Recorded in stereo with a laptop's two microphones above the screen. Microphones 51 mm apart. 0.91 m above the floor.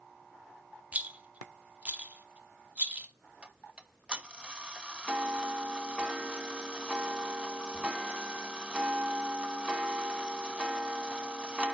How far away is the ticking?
About 0.8 m.